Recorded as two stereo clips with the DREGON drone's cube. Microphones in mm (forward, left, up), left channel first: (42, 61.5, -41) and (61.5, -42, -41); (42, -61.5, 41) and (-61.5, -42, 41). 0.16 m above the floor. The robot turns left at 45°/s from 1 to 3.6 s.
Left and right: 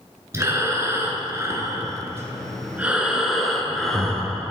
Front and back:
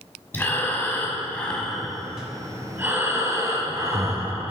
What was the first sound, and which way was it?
Breathing, 60° right.